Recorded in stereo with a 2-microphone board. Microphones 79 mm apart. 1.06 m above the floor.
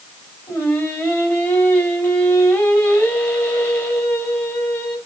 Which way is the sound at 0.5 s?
30° left (ahead or behind).